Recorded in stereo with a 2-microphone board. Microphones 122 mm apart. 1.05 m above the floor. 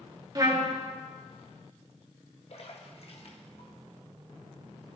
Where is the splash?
50° left (ahead or behind), 1.5 m.